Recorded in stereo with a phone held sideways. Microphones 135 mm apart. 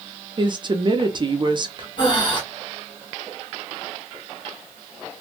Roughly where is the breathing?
Left.